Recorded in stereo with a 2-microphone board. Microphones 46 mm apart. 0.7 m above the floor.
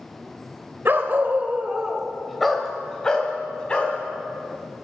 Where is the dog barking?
55° right (ahead or behind), 1.1 m; by 4.0 s 25° left (ahead or behind), 2.5 m.